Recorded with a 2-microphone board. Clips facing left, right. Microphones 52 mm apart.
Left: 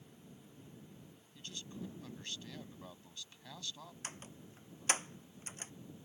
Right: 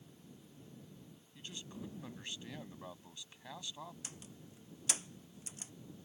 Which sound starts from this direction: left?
A door slam, at 4.0 s.